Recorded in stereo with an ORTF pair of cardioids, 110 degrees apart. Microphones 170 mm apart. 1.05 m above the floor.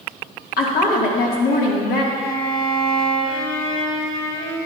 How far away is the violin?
About 3 m.